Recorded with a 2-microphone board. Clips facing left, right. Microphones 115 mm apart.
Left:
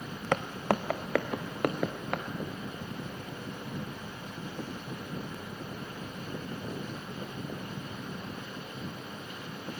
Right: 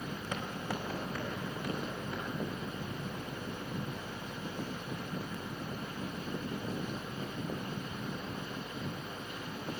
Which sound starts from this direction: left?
Footsteps, at 0.3 s.